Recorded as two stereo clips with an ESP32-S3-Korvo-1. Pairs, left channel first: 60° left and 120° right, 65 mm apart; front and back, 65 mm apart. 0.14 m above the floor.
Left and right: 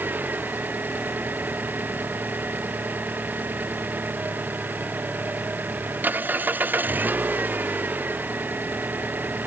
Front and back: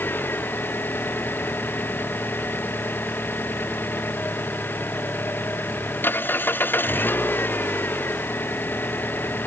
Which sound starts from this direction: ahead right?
An engine running, at 0.0 s.